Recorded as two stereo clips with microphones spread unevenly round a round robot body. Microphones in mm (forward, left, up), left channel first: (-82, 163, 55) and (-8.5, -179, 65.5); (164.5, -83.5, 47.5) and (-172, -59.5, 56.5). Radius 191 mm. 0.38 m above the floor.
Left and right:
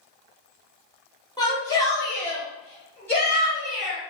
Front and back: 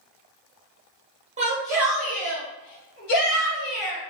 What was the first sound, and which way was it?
A shout, 150° left.